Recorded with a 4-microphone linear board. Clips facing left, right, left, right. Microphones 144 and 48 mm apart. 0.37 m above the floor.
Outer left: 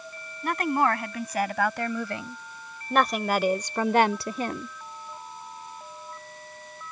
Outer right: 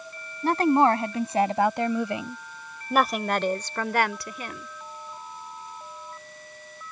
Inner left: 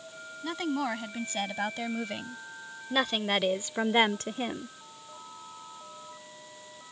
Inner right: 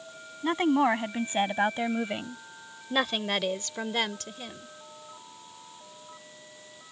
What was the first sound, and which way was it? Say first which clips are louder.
A woman speaking: outer right 5 dB, inner right 7 dB; 35° right (ahead or behind).